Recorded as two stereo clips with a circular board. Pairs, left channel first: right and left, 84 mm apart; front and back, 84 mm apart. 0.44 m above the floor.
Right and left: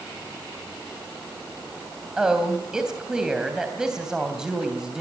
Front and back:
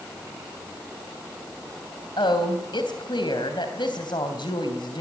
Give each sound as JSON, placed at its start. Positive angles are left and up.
{"t": 2.2, "sound": "a woman speaking", "azimuth_deg": 10, "distance_m": 3.0}